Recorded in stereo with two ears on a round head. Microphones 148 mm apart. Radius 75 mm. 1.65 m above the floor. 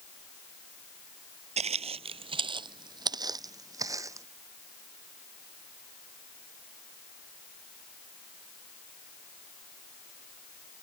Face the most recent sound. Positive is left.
turn(degrees=-20)  # may be behind; listen again after turning